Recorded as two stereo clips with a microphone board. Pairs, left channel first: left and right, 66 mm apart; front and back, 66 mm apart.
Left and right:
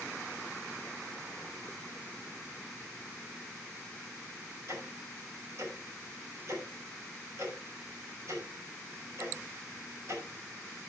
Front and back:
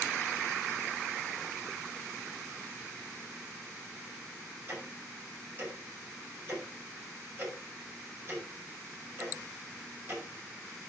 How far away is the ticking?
About 6 m.